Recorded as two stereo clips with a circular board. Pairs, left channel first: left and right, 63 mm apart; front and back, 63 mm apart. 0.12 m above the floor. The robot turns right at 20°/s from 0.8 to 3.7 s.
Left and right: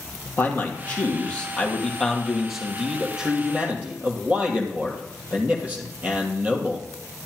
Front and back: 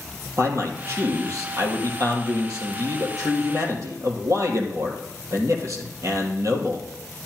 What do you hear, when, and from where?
0.4 s a man speaking: 145° left, 3 m; by 6.9 s 155° right, 3 m